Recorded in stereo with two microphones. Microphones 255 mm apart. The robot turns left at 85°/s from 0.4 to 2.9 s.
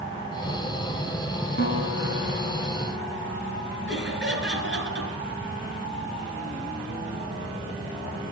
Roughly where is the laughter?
Right.